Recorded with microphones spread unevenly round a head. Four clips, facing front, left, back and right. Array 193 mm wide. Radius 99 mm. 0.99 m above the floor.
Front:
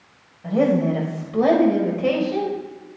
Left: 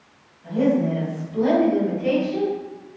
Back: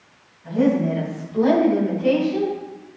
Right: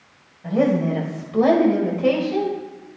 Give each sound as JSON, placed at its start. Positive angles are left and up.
{"t": 0.4, "sound": "a woman speaking", "azimuth_deg": -40, "distance_m": 4.5}